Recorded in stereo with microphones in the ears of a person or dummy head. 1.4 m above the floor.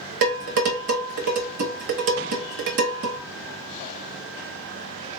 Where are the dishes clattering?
50° right (ahead or behind), 1.0 m.